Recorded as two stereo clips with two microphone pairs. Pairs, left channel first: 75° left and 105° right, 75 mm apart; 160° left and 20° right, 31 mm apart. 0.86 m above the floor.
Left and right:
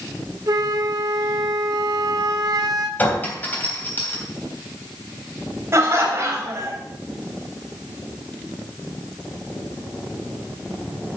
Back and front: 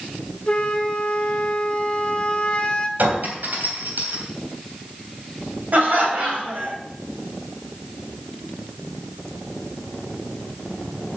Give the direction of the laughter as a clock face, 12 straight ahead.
2 o'clock.